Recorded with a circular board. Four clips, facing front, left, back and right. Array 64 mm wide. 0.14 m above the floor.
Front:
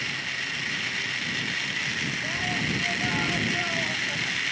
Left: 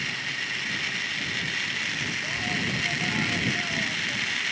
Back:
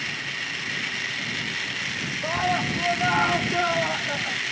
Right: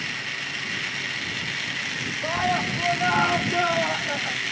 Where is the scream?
130° right; by 4.4 s 125° right.